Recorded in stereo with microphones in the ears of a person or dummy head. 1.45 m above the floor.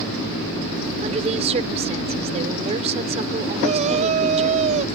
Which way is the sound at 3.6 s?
40° right (ahead or behind).